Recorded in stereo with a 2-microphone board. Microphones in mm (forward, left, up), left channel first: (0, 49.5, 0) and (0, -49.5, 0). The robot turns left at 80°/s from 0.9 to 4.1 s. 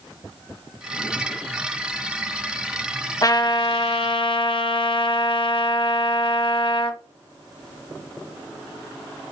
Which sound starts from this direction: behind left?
A trumpet, at 3.2 s.